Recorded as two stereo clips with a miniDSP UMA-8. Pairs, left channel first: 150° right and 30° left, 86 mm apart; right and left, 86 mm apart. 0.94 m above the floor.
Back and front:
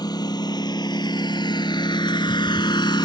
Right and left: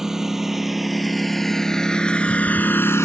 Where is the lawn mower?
175° left; by 3.1 s 140° right.